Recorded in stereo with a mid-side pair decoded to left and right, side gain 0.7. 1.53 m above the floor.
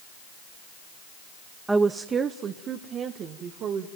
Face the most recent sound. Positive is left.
turn(degrees=-50)